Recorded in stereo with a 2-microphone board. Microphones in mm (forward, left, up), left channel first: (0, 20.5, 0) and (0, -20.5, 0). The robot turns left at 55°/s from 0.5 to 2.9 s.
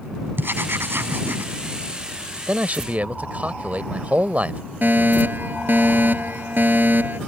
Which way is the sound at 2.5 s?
35° right (ahead or behind).